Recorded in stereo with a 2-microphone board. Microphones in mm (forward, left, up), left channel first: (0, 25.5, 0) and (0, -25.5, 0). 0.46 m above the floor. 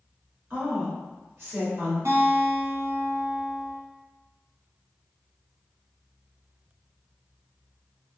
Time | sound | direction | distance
0.5 | a woman speaking | 50° right (ahead or behind) | 1.2 m
2.0 | a guitar | 65° right (ahead or behind) | 1.1 m